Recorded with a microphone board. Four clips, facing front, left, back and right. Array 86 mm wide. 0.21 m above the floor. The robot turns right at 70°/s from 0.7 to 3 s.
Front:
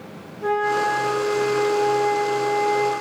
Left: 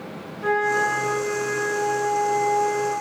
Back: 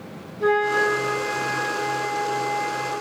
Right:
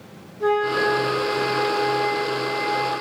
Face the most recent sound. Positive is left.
turn(degrees=10)